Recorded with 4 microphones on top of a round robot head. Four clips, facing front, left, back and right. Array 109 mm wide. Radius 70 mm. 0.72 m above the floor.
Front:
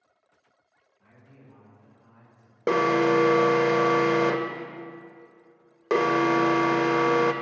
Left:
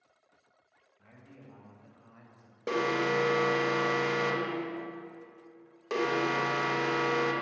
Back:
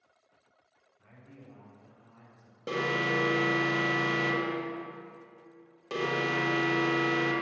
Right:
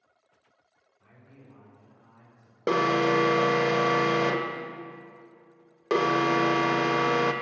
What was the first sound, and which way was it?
A man speaking, 120° left.